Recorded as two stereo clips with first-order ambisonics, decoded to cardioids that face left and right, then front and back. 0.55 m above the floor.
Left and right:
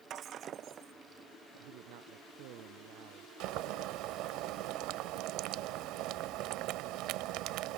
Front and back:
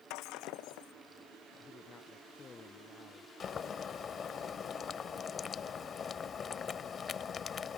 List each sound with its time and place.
0.1 s breaking glass: 30° right
1.5 s a man speaking: 70° right
3.4 s boiling: 65° right